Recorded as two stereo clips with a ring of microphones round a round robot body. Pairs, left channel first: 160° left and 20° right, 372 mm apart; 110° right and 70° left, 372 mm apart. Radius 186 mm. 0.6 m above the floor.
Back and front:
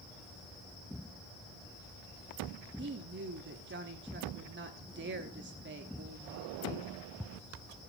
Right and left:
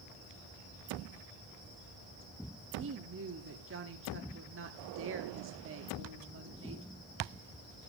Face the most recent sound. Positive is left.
turn(degrees=25)